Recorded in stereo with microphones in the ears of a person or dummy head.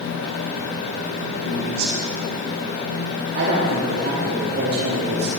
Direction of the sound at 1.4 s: 80° right.